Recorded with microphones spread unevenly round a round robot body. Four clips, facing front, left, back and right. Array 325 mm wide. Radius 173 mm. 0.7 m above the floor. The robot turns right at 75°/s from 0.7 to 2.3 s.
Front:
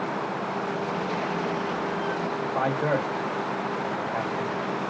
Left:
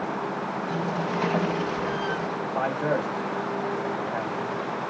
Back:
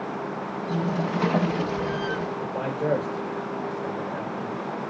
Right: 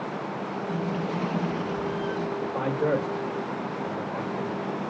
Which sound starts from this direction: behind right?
A man speaking, at 2.4 s.